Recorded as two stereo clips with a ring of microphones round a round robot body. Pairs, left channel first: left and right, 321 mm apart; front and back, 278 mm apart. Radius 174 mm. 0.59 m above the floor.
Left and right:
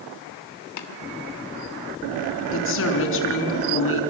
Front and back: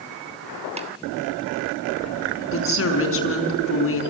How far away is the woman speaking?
About 5.5 m.